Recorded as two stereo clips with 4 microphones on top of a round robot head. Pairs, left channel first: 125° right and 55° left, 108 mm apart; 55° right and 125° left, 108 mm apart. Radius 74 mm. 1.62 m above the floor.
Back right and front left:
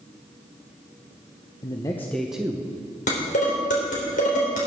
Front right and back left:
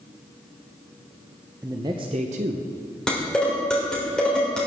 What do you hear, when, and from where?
1.6 s a man speaking: 170° right, 0.8 m; by 2.7 s 120° left, 1.0 m
3.1 s dishes clattering: 140° right, 3.5 m